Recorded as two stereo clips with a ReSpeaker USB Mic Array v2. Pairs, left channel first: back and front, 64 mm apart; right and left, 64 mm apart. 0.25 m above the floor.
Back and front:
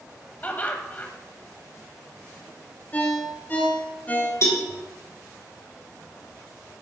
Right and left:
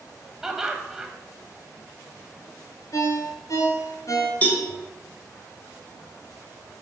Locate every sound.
0.4 s laughter: 165° left, 1.1 m
2.9 s a ringtone: 115° right, 2.0 m
4.4 s a cowbell: 150° right, 2 m